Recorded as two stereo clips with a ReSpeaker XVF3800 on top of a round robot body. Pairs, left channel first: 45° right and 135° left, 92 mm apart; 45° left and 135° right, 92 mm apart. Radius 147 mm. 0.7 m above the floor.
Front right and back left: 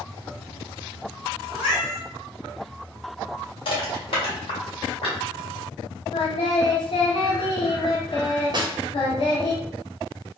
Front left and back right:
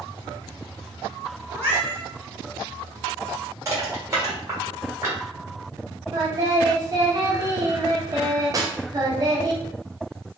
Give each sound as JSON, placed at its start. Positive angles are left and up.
{"t": 1.5, "sound": "a cat meowing", "azimuth_deg": -70, "distance_m": 1.1}
{"t": 3.6, "sound": "crushing", "azimuth_deg": -75, "distance_m": 1.5}
{"t": 6.1, "sound": "singing", "azimuth_deg": -80, "distance_m": 0.6}
{"t": 8.5, "sound": "a snare drum", "azimuth_deg": 175, "distance_m": 0.8}